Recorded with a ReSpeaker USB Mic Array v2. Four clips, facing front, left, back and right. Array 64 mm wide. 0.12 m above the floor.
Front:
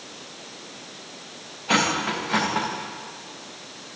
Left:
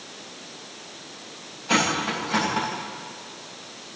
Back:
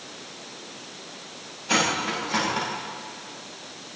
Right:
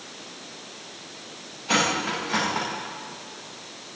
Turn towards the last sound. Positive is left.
turn(degrees=-20)